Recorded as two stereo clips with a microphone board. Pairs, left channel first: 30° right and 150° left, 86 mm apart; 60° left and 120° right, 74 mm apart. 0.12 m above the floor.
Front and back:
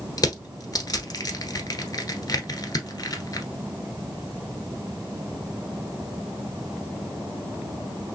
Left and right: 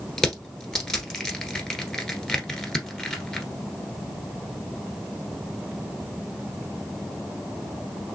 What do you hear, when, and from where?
0.2 s crushing: 15° right, 1.2 m